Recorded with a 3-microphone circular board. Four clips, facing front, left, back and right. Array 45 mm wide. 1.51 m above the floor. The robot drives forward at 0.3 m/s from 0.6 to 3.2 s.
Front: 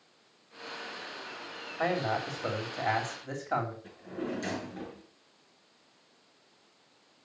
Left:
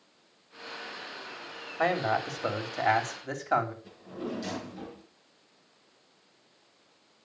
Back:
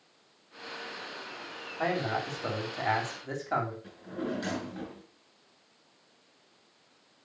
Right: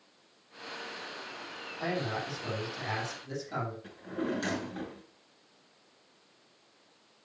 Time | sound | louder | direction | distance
1.8 | a man speaking | left 7 dB, even | 85° left | 3 m
3.8 | a drawer | right 3 dB, back 1 dB | 105° right | 5.5 m